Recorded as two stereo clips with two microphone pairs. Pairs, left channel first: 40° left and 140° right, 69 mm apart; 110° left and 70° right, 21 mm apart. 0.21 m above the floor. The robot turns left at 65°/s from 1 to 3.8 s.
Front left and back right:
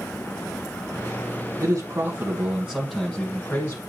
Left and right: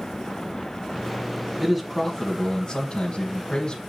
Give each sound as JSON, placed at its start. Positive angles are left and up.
{"t": 1.6, "sound": "a man speaking", "azimuth_deg": -140, "distance_m": 1.5}